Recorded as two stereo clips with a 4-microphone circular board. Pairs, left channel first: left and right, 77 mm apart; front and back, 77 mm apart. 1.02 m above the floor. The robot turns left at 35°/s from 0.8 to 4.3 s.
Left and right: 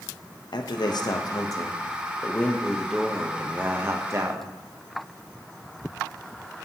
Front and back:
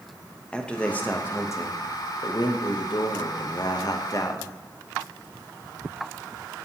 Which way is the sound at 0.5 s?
75° left.